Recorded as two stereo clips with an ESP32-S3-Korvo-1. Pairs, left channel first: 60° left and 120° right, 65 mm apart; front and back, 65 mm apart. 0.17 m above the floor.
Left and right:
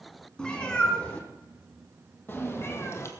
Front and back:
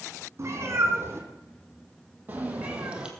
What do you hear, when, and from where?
0.4 s a cat meowing: 135° left, 3 m; by 3.1 s 105° left, 2 m